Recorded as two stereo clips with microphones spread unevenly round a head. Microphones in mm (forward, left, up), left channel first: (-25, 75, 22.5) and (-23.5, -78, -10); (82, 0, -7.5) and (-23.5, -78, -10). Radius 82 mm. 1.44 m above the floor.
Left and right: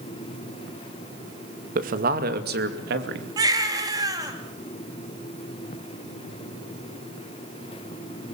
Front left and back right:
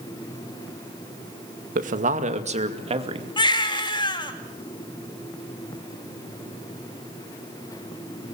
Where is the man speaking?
125° right, 2 m; by 3.3 s 95° right, 2.5 m.